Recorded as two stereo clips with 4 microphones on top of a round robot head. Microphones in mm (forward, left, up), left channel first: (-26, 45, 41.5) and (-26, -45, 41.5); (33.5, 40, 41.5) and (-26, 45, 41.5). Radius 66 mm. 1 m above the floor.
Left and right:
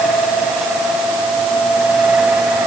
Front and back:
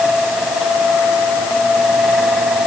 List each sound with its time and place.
Only background noise.